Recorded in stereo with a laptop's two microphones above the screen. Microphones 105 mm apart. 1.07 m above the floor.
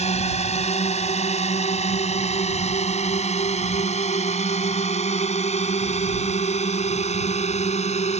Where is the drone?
85° left.